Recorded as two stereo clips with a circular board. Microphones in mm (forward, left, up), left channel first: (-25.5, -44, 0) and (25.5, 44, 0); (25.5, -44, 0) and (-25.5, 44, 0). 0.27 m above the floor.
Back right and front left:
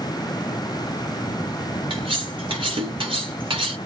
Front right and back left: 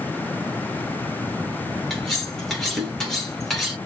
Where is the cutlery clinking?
30° left, 2 m.